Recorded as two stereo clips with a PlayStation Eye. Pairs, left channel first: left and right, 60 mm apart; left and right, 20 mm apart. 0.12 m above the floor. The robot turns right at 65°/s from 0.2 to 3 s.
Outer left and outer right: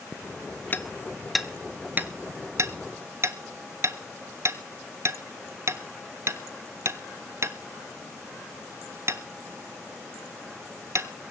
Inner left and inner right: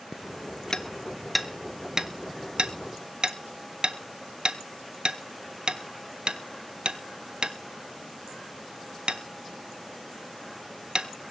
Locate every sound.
0.7 s hammering: 30° left (ahead or behind), 1.0 m; by 11.1 s 50° right (ahead or behind), 1.0 m